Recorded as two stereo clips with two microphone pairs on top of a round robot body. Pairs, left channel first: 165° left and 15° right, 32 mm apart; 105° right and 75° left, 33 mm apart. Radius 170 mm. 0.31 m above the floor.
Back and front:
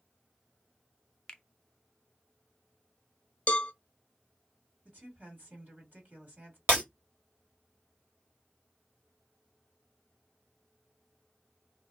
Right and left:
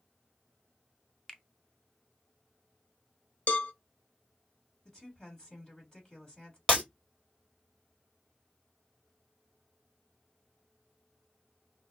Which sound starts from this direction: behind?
A finger snap, at 1.3 s.